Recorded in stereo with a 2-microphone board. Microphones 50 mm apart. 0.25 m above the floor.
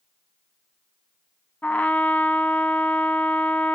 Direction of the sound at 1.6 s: 30° left (ahead or behind).